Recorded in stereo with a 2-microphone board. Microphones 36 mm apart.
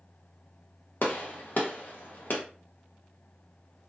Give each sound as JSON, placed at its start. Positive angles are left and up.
{"t": 1.0, "sound": "a gunshot", "side_deg": 55, "distance_m": 0.7}